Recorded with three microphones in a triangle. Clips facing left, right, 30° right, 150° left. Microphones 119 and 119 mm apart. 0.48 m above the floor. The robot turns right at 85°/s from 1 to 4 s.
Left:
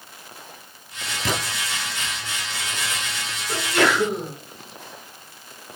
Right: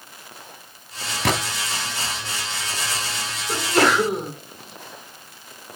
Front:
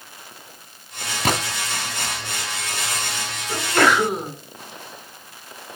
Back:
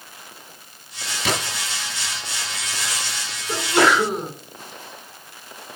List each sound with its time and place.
1.2 s a gunshot: 75° right, 1.2 m; by 1.4 s 60° right, 1.2 m
3.5 s a sneeze: 155° right, 5 m; by 4.3 s 115° right, 5 m